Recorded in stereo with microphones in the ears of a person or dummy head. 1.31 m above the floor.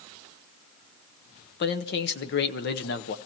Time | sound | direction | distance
1.6 | a man speaking | 55° left (ahead or behind) | 0.9 m